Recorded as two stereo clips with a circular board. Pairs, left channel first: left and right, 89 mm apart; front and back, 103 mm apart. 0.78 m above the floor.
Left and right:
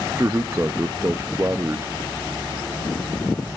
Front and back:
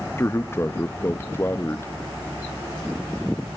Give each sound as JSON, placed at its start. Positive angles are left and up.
{"t": 0.2, "sound": "a man speaking", "azimuth_deg": -50, "distance_m": 0.6}